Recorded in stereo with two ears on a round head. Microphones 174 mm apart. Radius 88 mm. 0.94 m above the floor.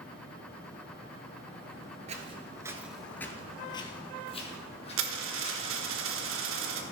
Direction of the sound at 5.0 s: 75° right (ahead or behind).